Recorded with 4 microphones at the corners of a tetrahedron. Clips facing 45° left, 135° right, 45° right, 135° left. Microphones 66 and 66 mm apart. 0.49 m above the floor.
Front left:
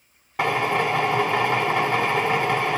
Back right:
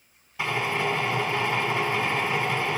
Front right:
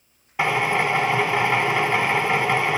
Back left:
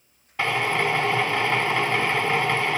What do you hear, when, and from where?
0.4 s a drill: 30° left, 1.2 m